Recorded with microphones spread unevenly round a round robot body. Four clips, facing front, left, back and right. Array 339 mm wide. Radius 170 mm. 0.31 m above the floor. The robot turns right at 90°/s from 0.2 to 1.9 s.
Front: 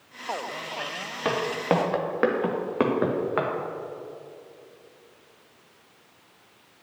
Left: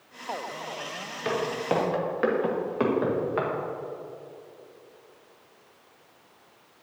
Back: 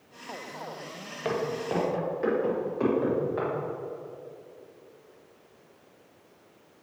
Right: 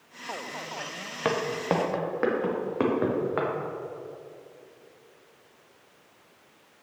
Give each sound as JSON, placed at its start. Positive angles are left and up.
{"t": 1.2, "sound": "footsteps", "azimuth_deg": -65, "distance_m": 2.5}